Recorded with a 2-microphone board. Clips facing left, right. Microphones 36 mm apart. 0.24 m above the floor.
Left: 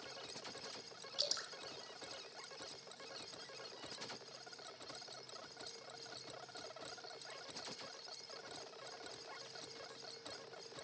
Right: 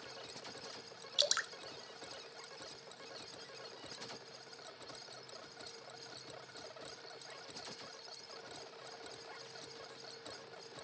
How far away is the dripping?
About 0.8 m.